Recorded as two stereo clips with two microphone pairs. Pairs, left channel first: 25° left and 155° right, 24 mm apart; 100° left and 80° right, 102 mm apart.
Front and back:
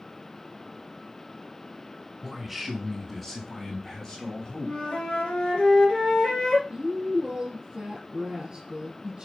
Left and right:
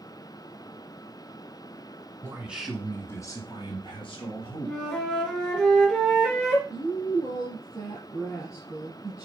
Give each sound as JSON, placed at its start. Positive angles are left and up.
{"t": 2.2, "sound": "a man speaking", "azimuth_deg": -95, "distance_m": 1.6}
{"t": 4.7, "sound": "a flute", "azimuth_deg": 20, "distance_m": 2.5}
{"t": 6.7, "sound": "a woman speaking", "azimuth_deg": 155, "distance_m": 3.0}